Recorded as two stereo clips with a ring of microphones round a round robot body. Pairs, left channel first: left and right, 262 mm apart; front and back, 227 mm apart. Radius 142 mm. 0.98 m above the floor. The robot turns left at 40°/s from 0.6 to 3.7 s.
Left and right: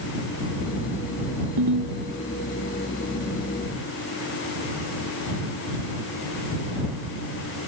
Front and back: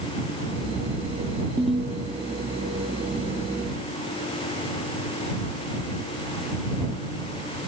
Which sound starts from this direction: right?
A ringtone, at 1.6 s.